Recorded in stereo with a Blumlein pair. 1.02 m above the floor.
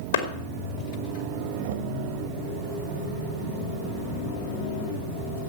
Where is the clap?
65° left, 2.5 m.